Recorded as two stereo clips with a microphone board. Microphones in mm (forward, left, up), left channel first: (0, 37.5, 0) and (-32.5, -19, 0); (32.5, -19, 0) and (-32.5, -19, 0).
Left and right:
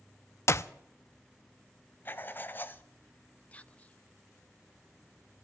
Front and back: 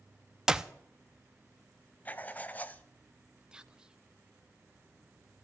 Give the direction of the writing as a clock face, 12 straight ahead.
11 o'clock.